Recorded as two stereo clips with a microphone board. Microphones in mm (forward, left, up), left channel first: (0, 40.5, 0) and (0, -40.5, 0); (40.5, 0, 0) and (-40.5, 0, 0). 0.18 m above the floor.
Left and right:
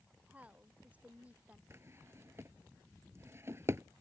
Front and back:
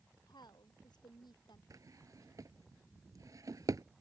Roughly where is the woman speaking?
Ahead.